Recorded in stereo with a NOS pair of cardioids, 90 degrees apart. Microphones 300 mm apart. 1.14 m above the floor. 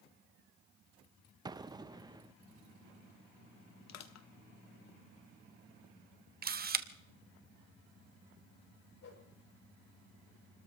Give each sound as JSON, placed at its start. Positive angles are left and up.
{"t": 1.4, "sound": "an explosion", "azimuth_deg": -15, "distance_m": 0.5}
{"t": 3.9, "sound": "crushing", "azimuth_deg": 65, "distance_m": 1.4}
{"t": 6.4, "sound": "a camera shutter", "azimuth_deg": -30, "distance_m": 1.1}
{"t": 9.0, "sound": "a whoosh", "azimuth_deg": 55, "distance_m": 6.0}